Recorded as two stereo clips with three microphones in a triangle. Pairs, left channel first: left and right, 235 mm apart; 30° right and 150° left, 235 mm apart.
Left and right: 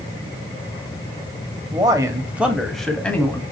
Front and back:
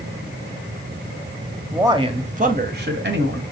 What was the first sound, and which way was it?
A man speaking, 140° right.